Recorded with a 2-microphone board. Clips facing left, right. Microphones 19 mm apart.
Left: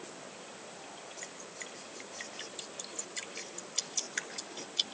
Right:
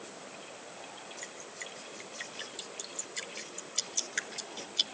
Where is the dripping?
10° right (ahead or behind), 2 m.